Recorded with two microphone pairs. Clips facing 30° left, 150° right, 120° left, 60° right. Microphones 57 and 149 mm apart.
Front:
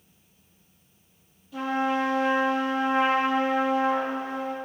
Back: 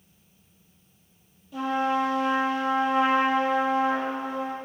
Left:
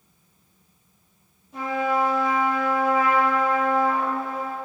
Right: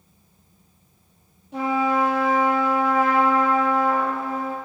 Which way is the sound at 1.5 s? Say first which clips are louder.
Back 1 dB, right 3 dB; 65° right.